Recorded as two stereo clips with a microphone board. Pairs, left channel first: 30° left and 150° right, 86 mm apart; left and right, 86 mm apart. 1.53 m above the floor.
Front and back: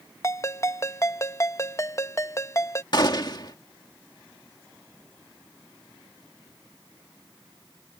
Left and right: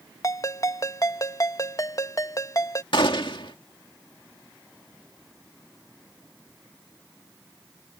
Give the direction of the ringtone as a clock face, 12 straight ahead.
10 o'clock.